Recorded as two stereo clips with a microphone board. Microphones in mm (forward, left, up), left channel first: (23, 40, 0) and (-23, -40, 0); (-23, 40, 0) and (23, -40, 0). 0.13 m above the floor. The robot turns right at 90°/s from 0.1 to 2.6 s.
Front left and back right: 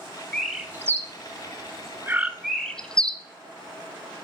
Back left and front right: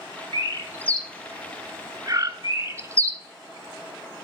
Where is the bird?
135° left, 0.6 m; by 3.2 s 20° right, 0.6 m.